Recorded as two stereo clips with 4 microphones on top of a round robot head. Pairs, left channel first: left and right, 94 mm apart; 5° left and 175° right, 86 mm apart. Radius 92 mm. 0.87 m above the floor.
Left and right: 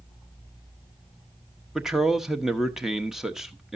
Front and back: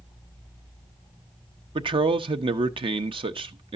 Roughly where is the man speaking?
Behind.